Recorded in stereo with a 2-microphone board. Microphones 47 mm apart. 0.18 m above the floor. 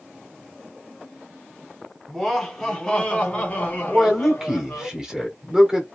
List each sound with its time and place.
2.1 s laughter: centre (ahead or behind), 1.4 m; by 4.9 s 45° left (ahead or behind), 1.8 m
3.9 s a man speaking: 15° right (ahead or behind), 1.4 m